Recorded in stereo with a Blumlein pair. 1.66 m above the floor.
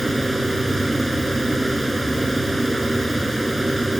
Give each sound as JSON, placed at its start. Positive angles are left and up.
{"t": 0.0, "sound": "a fan", "azimuth_deg": -5}